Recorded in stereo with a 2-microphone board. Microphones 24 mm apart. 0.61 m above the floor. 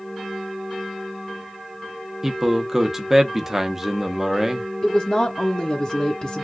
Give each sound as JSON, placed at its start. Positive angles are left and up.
{"t": 2.2, "sound": "a man speaking", "side_deg": -15, "distance_m": 0.7}
{"t": 4.8, "sound": "a woman speaking", "side_deg": 35, "distance_m": 0.9}